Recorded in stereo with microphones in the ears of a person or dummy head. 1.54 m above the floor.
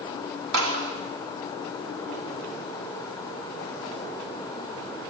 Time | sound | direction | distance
0.5 | a clap | 80° right | 3 m